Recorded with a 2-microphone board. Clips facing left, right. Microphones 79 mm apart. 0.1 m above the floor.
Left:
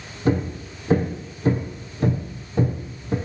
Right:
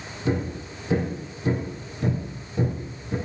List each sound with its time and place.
0.2 s hammering: 40° left (ahead or behind), 4.5 m